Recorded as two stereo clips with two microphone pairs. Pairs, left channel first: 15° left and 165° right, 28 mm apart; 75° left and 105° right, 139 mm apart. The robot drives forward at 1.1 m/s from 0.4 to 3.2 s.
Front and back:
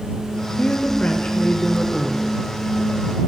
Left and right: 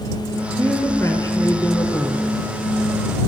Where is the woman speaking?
10° left, 1.5 m; by 2.4 s 160° left, 1.0 m.